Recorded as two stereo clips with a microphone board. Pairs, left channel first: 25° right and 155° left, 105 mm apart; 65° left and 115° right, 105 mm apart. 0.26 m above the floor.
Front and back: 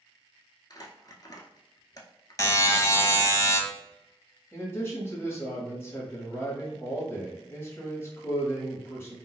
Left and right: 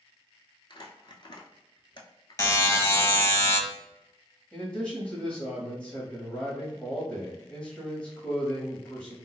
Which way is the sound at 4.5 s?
5° left.